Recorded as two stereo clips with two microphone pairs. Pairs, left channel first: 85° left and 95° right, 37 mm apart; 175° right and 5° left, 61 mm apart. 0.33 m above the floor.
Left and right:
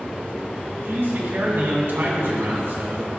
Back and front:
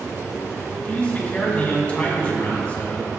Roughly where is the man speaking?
Right.